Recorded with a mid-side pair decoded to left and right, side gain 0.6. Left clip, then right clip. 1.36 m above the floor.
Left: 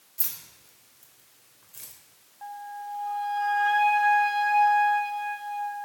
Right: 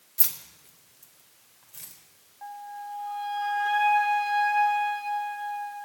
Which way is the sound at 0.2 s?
35° right.